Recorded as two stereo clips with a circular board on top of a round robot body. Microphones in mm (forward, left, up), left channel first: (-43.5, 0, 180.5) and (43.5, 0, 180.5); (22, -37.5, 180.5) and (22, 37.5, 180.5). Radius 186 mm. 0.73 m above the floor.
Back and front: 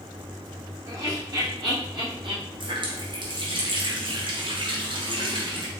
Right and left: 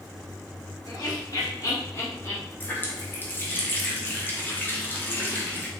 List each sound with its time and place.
0.8 s laughter: 50° right, 2.5 m; by 2.4 s 30° right, 2.5 m
2.6 s a running tap: 25° right, 1.2 m